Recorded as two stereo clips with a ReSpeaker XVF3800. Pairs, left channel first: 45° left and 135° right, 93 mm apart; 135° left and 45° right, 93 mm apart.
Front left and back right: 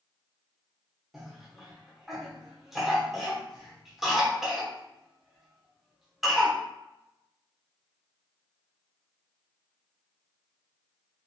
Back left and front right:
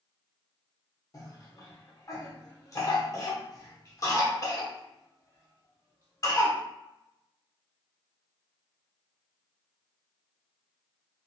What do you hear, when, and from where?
1.1 s a cough: 140° left, 0.9 m